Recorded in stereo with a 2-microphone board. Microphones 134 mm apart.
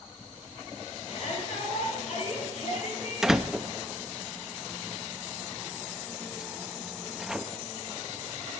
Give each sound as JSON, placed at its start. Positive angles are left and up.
{"t": 1.1, "sound": "a shout", "side_deg": 60, "distance_m": 7.5}
{"t": 3.2, "sound": "a door slam", "side_deg": -5, "distance_m": 0.6}